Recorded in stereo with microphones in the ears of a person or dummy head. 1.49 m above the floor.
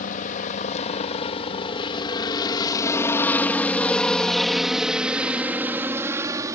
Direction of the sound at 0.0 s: 40° left (ahead or behind).